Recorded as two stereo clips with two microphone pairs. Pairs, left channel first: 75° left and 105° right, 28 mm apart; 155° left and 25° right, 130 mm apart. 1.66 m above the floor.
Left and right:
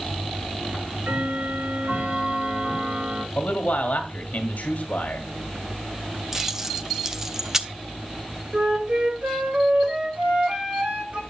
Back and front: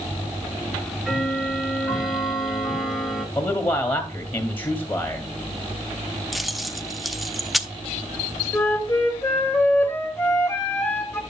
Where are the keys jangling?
120° right, 0.5 m.